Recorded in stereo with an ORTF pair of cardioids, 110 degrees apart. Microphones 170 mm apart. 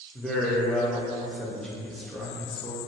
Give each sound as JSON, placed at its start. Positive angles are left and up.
{"t": 0.1, "sound": "a man speaking", "azimuth_deg": 5, "distance_m": 0.7}